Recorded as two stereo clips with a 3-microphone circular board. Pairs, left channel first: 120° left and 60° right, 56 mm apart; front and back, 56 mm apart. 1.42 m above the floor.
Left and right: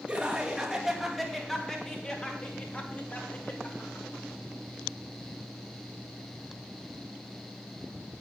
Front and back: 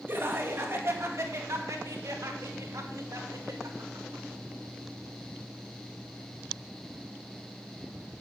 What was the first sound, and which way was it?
Laughter, 135° right.